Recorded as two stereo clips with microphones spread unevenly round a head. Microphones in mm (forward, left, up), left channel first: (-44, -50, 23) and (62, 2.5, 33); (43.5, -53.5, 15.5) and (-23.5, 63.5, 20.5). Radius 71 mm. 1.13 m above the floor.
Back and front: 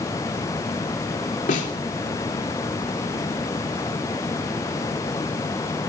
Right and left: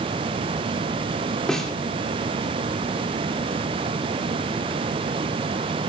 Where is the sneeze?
No sneeze in this recording.